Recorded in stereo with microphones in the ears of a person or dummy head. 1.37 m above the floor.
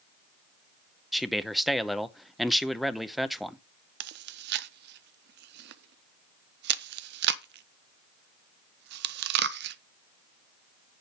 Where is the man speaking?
Centre (ahead or behind), 0.8 m.